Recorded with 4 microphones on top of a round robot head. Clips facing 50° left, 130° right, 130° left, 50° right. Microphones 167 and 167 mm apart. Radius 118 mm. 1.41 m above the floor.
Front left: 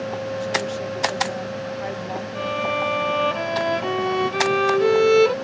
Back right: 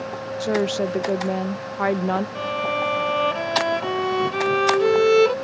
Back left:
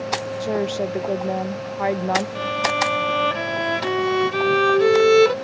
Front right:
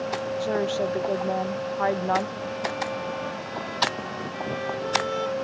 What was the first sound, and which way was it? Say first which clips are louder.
A woman speaking: back right 4 dB, back left 2 dB; 160° right.